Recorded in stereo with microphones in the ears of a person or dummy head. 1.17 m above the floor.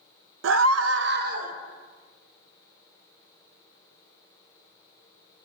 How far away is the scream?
About 0.8 m.